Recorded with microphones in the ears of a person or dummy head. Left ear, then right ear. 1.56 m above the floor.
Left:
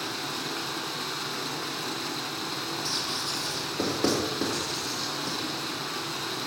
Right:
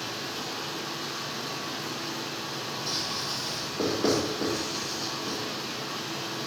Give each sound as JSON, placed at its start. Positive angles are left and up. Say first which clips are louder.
{"t": 0.0, "sound": "running water", "louder": "left 2 dB", "side_deg": 50, "distance_m": 3.5}
{"t": 2.9, "sound": "writing", "louder": "even", "side_deg": 45, "distance_m": 5.5}